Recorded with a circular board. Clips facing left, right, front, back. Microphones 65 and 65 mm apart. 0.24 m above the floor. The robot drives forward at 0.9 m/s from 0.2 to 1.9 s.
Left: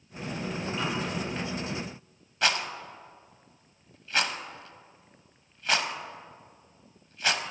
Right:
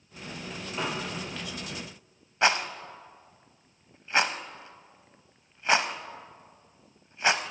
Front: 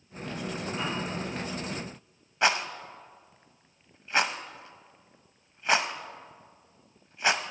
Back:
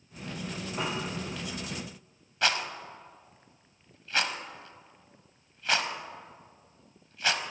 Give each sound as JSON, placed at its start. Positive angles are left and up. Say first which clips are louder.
{"t": 0.8, "sound": "a piano", "louder": "right 1 dB, back 1 dB", "azimuth_deg": -145, "distance_m": 3.0}
{"t": 2.4, "sound": "a rattle", "louder": "right 3 dB, front 3 dB", "azimuth_deg": -50, "distance_m": 0.6}